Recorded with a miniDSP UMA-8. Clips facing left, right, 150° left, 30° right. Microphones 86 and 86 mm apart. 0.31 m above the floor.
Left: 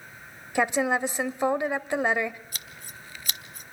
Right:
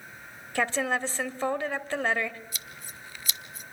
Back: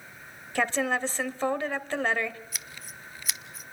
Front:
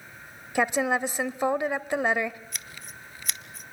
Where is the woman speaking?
30° left, 0.9 m.